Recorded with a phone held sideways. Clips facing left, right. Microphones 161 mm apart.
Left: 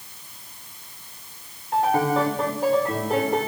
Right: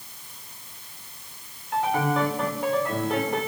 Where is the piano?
35° left (ahead or behind), 4.5 m.